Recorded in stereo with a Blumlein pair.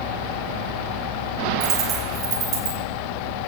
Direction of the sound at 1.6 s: 35° right.